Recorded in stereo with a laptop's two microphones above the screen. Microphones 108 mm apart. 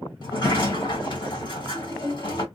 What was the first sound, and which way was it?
A sliding door, 45° left (ahead or behind).